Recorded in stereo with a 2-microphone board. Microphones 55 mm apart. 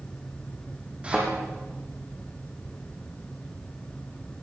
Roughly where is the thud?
Right.